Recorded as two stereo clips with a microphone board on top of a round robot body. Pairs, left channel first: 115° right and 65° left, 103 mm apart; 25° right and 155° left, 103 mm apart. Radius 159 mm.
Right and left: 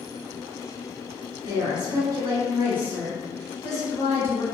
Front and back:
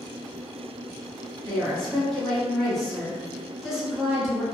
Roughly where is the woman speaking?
Ahead left.